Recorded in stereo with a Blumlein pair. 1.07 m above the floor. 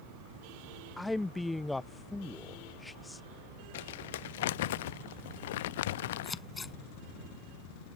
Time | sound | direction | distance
1.0 | a man speaking | 5° left | ?
3.7 | crumpling | 55° left | ?
6.2 | scissors | 15° left | ?